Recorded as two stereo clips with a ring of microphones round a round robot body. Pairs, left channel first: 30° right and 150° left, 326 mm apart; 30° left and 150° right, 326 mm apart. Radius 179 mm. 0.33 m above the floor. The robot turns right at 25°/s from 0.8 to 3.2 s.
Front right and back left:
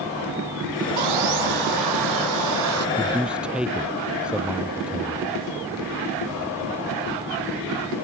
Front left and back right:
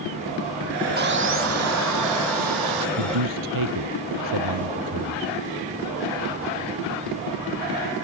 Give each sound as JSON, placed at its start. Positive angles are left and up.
{"t": 1.0, "sound": "sawing", "azimuth_deg": 150}
{"t": 3.0, "sound": "a man speaking", "azimuth_deg": -130}